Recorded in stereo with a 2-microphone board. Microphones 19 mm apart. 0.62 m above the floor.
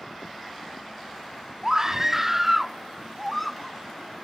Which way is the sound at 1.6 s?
35° right (ahead or behind).